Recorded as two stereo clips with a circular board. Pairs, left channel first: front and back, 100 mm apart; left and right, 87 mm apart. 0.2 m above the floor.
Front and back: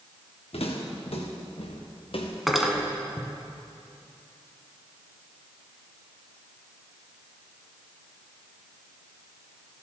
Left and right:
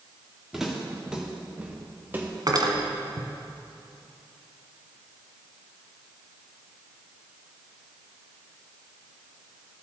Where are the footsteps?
5° right, 2.5 m; by 3.3 s 45° right, 1.3 m.